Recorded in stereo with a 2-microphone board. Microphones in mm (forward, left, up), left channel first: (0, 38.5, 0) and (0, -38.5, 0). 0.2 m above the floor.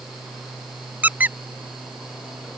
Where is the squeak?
20° right (ahead or behind).